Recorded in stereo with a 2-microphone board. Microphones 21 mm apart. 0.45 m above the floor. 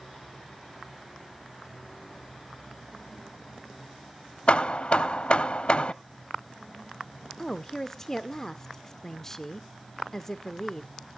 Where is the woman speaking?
20° left (ahead or behind), 0.8 m.